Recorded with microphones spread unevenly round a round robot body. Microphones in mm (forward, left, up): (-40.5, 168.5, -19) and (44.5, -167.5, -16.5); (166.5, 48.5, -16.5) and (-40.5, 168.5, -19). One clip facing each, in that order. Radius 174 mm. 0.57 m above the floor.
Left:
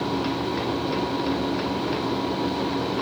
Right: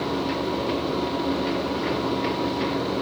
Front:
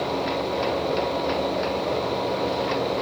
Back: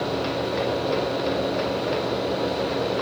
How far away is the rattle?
No rattle in this recording.